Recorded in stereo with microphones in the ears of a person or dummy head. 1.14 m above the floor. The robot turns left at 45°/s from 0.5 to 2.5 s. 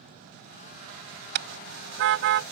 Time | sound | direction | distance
1.4 | a car horn | 65° right (ahead or behind) | ?